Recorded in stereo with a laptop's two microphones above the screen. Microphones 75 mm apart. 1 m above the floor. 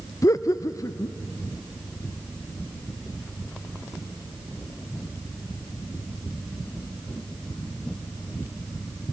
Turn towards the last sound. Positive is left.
turn(degrees=45)  # may be behind; listen again after turning